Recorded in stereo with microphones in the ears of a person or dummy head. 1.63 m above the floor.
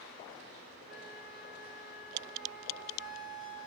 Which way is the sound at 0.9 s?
Centre (ahead or behind).